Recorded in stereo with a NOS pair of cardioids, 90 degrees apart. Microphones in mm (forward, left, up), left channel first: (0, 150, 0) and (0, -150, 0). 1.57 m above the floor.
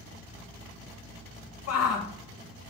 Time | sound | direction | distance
1.7 | a shout | 60° left | 1.7 m